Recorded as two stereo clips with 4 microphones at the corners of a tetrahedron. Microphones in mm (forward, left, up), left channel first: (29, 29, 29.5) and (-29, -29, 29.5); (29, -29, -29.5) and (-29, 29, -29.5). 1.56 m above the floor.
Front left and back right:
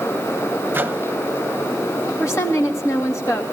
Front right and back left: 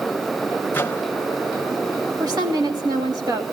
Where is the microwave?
90° right, 0.8 m.